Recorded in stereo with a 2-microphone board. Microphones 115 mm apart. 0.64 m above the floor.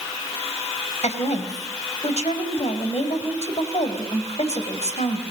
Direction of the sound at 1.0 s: 65° left (ahead or behind).